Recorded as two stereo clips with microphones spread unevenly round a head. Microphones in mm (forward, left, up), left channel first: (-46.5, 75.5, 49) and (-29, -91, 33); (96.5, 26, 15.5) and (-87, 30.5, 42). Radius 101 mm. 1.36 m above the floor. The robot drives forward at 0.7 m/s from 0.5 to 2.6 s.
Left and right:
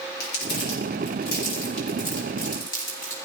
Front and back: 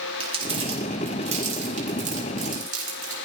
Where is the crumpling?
120° left, 4.5 m; by 3.1 s 135° left, 5 m.